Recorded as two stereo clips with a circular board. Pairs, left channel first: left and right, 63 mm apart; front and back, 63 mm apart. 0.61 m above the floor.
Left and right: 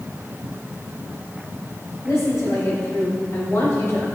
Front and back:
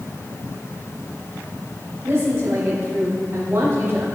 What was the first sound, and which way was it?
A woman speaking, 140° left.